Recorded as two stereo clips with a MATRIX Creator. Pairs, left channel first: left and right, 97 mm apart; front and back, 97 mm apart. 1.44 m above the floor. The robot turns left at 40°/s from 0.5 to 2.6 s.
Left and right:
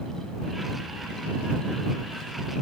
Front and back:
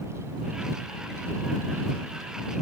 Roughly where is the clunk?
No clunk in this recording.